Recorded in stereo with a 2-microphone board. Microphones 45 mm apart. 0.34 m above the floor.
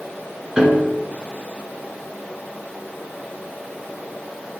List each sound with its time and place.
0.6 s a piano: 15° right (ahead or behind), 1.5 m